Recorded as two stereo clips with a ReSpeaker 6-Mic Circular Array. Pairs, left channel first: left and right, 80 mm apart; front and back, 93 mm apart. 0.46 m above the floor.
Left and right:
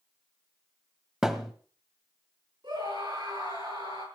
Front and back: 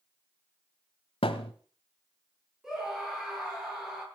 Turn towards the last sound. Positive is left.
turn(degrees=-95)